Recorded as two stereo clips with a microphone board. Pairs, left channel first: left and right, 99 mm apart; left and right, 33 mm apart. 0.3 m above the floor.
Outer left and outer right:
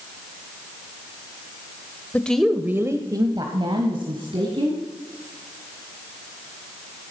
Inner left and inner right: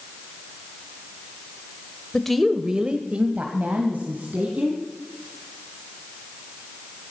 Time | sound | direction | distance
2.1 | a woman speaking | 15° left (ahead or behind) | 0.9 m